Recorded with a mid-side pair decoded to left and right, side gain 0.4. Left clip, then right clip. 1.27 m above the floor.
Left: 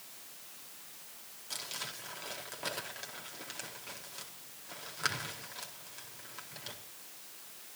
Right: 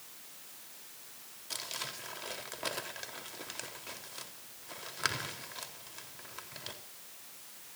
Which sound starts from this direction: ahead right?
Crumpling, at 1.5 s.